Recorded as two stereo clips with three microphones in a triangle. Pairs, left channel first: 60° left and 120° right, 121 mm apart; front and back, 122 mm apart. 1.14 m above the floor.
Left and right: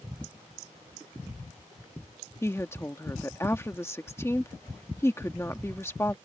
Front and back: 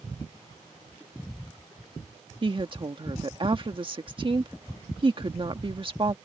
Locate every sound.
2.4 s a woman speaking: 130° left